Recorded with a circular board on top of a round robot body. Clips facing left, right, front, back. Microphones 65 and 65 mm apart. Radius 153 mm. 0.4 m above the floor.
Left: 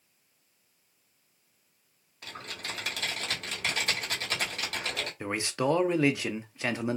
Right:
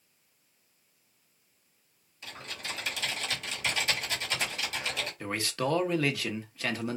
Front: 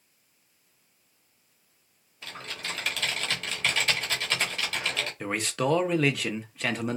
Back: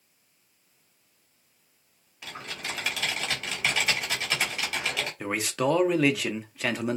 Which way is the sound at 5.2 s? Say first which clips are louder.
Left 3 dB, back 1 dB; 100° left.